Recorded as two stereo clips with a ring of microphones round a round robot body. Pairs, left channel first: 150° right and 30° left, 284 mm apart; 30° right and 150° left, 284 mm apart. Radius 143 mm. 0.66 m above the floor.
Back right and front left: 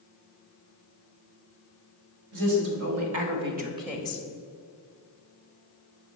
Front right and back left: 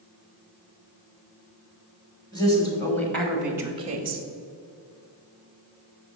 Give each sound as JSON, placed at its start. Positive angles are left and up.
{"t": 2.3, "sound": "a woman speaking", "azimuth_deg": 45, "distance_m": 3.0}